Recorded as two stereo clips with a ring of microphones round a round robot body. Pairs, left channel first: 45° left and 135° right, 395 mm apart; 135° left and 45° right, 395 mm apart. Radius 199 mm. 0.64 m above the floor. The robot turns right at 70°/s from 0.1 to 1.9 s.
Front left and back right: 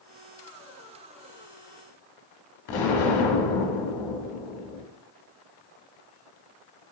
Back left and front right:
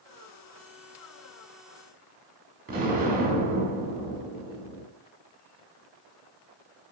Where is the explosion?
25° left, 0.9 m.